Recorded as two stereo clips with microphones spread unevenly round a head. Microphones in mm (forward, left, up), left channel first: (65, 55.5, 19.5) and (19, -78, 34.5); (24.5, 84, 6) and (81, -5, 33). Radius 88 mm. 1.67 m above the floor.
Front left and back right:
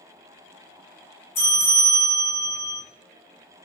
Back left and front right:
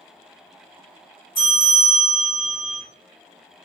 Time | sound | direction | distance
1.4 | a bell | 75° left | 1.6 m